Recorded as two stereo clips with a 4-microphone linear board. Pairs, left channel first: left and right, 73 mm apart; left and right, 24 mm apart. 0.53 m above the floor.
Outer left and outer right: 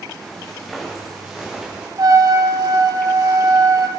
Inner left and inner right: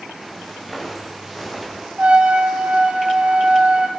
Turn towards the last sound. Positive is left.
turn(degrees=-60)  # may be behind; listen again after turning